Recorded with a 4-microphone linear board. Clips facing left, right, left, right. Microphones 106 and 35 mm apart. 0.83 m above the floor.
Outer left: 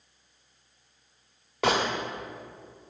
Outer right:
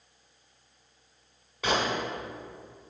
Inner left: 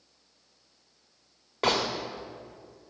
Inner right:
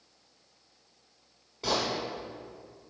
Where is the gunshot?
75° left (ahead or behind), 1.3 m.